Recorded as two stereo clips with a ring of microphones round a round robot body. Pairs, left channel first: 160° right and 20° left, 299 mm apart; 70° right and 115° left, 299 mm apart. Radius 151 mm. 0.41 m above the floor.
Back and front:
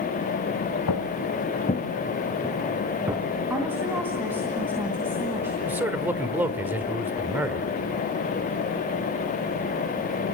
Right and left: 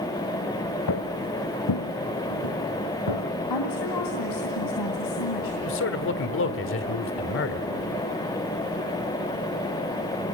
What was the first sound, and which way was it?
Footsteps, 115° right.